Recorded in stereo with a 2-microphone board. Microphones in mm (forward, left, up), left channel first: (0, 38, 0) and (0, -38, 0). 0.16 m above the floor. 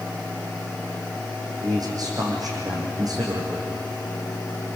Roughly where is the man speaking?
Right.